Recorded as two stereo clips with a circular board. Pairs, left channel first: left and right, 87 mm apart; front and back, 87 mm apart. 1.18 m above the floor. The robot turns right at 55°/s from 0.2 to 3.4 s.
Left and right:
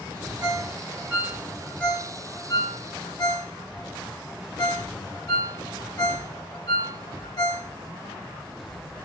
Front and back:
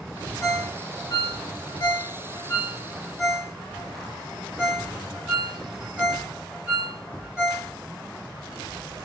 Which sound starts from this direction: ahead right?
A ringtone, at 0.4 s.